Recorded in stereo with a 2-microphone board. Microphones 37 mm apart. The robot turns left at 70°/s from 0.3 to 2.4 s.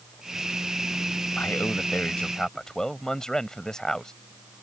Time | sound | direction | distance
1.4 | a man speaking | 95° left | ?